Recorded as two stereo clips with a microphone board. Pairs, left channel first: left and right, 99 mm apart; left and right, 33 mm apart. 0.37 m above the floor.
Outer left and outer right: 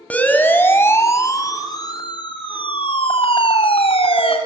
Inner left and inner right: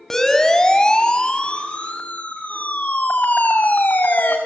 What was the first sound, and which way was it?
A siren, 15° left (ahead or behind).